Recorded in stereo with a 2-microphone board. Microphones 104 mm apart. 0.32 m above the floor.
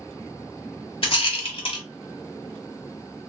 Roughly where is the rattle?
Left.